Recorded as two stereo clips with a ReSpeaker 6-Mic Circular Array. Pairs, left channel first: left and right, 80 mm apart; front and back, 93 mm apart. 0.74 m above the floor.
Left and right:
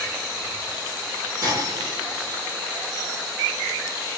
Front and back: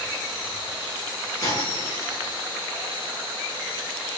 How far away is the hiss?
About 2.5 m.